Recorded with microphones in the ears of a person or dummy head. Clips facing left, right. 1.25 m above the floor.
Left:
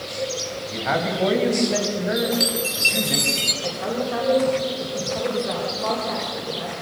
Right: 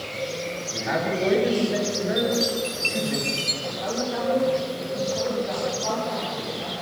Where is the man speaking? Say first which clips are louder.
Left 2 dB; 85° left, 6 m; by 3.2 s 70° left (ahead or behind), 6.5 m.